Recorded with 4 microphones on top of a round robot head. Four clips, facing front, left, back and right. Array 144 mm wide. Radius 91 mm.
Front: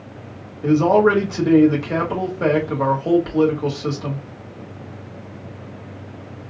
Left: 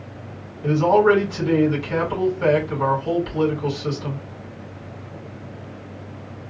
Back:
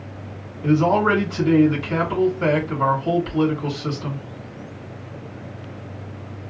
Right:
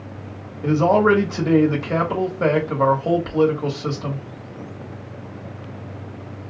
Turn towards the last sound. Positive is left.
turn(degrees=-55)